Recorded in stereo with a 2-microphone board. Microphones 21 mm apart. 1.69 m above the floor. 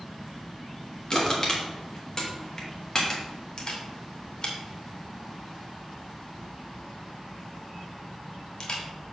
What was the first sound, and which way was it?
Crushing, 25° left (ahead or behind).